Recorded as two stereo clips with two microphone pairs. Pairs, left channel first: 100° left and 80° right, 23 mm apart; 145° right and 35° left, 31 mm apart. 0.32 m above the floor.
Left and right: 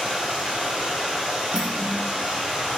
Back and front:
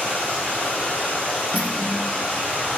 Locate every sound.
0.0 s running water: 115° right, 6 m
1.5 s cutlery clinking: 120° right, 2.5 m